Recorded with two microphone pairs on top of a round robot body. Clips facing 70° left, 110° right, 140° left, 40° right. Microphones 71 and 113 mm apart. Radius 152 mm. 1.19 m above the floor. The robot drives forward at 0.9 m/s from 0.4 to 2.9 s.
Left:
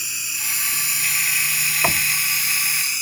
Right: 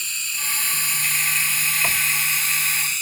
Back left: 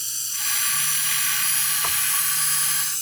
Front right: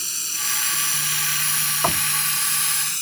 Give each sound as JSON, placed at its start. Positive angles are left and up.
{"t": 0.0, "sound": "running water", "azimuth_deg": -10}
{"t": 1.8, "sound": "knocking", "azimuth_deg": 5}